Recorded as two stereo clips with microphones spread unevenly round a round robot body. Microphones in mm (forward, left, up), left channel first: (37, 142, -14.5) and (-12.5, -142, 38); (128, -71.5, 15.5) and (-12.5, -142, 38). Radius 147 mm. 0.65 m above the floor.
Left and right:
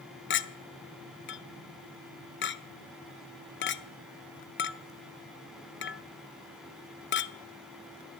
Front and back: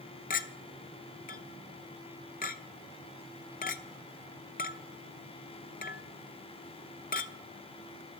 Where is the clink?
40° left, 0.7 m.